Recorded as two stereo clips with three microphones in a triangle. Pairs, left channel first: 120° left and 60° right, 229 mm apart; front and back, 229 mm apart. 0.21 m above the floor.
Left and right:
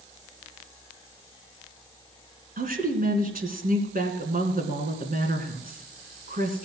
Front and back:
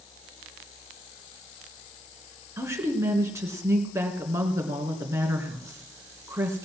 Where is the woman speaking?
105° right, 2.5 m.